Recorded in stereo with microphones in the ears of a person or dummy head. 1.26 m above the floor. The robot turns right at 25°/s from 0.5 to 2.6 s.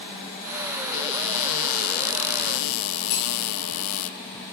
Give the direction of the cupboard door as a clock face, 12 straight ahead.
10 o'clock.